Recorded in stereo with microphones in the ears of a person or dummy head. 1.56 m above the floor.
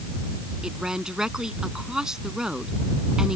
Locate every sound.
0.6 s a woman speaking: 5° right (ahead or behind)